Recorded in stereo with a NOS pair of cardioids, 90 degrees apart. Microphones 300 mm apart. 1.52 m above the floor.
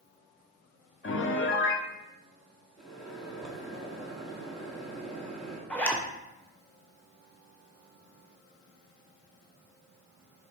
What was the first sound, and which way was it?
A piano, 40° left.